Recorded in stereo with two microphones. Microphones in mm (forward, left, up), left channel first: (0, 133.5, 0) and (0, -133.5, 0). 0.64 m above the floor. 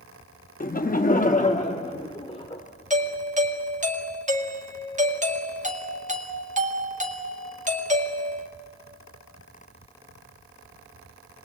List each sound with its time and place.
0.6 s laughter: 30° left (ahead or behind), 0.6 m; by 2.6 s 20° left (ahead or behind), 1.7 m
2.9 s a doorbell: 30° right (ahead or behind), 1.7 m